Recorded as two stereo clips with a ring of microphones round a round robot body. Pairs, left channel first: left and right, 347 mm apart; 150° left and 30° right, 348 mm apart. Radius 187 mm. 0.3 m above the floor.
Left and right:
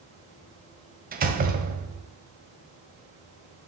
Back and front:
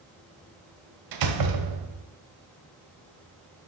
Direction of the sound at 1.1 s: 25° right.